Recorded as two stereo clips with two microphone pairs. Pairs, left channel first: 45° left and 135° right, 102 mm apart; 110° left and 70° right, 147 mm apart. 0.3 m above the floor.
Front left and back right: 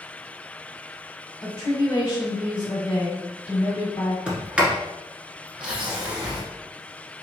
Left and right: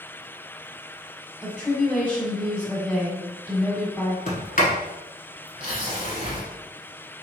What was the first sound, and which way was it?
A woman speaking, 35° left.